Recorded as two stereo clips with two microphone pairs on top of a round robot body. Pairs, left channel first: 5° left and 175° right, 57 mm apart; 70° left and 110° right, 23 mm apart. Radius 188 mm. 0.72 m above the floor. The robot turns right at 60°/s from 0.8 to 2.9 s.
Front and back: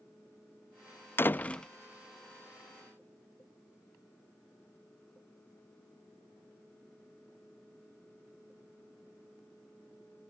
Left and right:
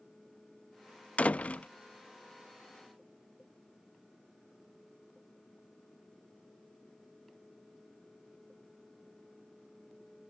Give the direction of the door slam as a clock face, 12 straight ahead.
10 o'clock.